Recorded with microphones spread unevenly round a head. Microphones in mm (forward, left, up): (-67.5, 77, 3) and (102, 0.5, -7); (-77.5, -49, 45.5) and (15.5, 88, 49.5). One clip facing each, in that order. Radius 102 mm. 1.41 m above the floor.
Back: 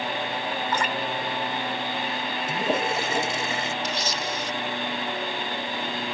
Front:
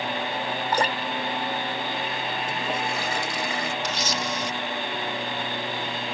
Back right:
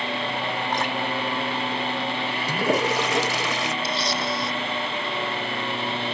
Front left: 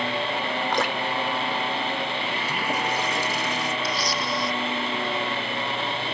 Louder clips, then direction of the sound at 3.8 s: Front 1 dB, back right 1 dB; 60° right.